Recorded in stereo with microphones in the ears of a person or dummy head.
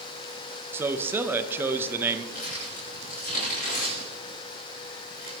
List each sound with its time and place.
0.7 s a man speaking: 15° right (ahead or behind), 0.8 m
2.3 s crumpling: 50° left (ahead or behind), 5 m